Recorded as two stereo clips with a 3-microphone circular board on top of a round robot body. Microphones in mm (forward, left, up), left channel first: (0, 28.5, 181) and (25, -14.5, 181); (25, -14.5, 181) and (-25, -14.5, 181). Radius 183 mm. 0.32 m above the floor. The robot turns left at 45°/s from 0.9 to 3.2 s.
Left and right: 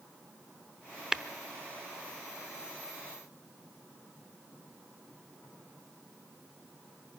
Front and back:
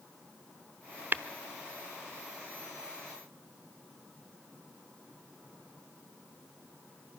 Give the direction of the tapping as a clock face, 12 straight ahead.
5 o'clock.